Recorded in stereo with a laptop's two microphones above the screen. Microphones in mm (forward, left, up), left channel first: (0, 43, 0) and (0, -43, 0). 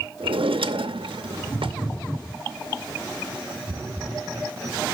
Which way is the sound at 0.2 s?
85° right.